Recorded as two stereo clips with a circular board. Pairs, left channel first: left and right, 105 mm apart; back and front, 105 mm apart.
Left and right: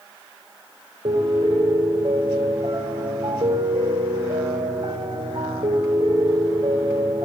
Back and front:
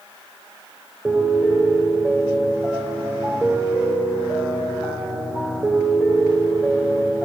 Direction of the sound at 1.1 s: 70° right.